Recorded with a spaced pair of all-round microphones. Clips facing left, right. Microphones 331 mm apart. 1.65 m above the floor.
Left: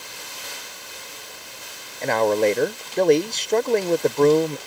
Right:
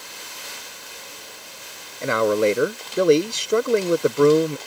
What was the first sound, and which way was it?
A man speaking, 10° right (ahead or behind).